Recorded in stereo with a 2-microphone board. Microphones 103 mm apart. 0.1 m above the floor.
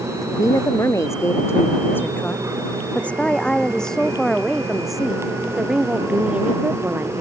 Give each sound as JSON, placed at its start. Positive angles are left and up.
{"t": 0.2, "sound": "a woman speaking", "side_deg": 35}